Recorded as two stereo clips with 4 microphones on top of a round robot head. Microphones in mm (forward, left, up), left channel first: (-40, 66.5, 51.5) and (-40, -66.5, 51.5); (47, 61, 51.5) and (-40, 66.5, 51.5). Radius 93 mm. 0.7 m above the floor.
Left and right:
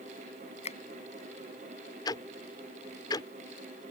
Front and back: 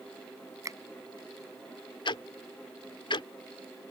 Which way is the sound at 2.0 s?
25° left.